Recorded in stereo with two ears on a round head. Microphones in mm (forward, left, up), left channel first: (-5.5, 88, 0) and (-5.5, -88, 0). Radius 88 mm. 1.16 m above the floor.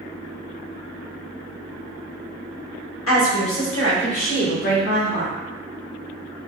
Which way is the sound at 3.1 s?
80° left.